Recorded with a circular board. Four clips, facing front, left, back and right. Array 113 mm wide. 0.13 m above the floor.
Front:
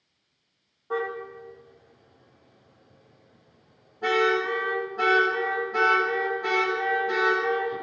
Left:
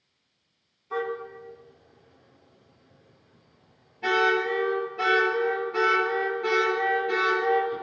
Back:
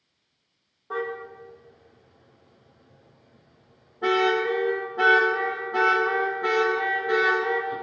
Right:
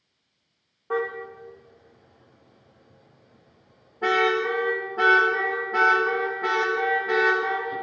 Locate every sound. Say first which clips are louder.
0.9 s a car horn: right 3 dB, front 1 dB; 95° right, 9.5 m; by 7.8 s 110° right, 14.5 m